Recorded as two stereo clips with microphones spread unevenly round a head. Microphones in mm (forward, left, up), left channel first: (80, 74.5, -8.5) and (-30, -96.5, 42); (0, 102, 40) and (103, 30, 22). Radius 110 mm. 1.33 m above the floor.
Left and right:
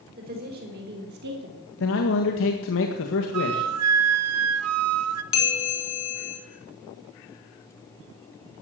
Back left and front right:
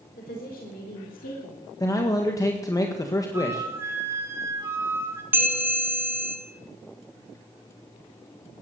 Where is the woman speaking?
175° right, 4 m; by 1.6 s 165° right, 3 m.